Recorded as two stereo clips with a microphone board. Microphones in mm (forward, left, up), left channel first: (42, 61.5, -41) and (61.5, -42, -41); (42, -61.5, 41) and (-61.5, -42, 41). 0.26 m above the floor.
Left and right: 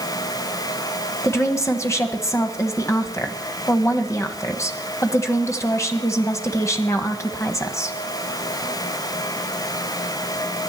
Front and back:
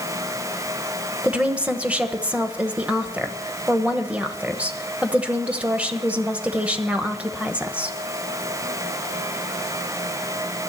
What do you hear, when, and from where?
1.2 s a woman speaking: 105° left, 1.2 m